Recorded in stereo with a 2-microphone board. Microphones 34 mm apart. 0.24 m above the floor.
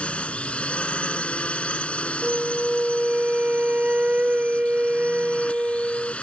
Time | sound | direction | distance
0.0 | a drone | 35° left (ahead or behind) | ?
2.2 | a flute | 40° right (ahead or behind) | ?